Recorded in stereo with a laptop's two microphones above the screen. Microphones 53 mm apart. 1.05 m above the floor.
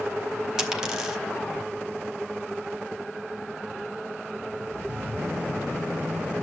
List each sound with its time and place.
0.6 s a dropped coin: 15° right (ahead or behind), 0.9 m